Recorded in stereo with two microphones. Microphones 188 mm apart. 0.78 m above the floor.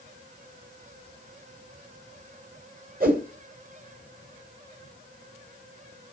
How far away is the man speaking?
No man speaking in this recording.